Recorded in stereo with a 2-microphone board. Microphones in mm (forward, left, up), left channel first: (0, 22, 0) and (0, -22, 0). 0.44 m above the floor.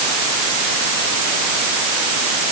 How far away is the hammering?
I don't hear hammering.